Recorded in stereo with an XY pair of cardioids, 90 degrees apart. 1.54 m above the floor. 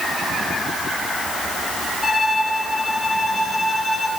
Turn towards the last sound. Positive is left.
turn(degrees=15)